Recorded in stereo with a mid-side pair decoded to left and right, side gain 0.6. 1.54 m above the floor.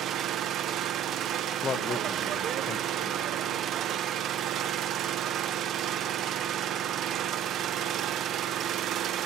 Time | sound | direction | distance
0.0 | an engine running | 50° right | 1.3 m
1.6 | a man speaking | 40° left | 1.4 m